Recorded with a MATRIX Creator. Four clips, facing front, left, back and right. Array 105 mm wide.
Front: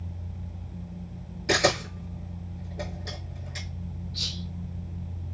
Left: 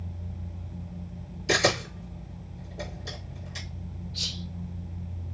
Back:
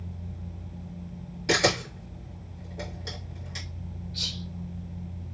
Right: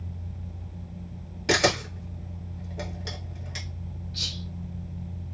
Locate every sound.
1.5 s a camera shutter: 100° right, 1.6 m
4.1 s whispering: 95° right, 1.5 m